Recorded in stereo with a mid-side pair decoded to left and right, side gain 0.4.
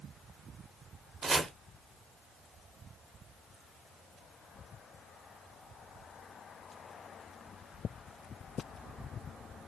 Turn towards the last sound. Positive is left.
turn(degrees=-40)